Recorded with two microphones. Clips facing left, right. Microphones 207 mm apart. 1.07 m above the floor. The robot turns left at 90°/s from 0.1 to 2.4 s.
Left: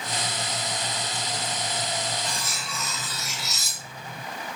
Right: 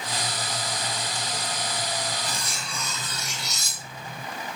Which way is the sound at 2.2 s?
10° right (ahead or behind).